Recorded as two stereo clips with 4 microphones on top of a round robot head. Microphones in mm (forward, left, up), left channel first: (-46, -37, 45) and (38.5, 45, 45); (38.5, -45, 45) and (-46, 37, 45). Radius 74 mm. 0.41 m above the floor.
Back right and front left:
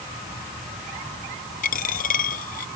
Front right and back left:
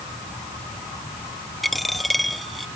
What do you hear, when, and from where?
1.6 s a dropped coin: 135° right